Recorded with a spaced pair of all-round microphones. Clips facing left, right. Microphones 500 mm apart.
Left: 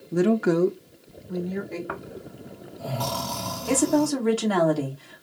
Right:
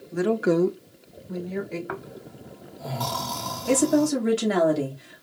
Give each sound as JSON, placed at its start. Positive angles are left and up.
{"t": 0.1, "sound": "a woman speaking", "side_deg": 70, "distance_m": 0.7}
{"t": 1.9, "sound": "snoring", "side_deg": 55, "distance_m": 1.4}
{"t": 3.7, "sound": "a woman speaking", "side_deg": -45, "distance_m": 2.0}